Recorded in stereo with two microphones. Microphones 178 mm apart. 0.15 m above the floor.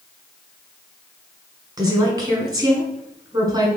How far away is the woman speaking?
About 1.1 m.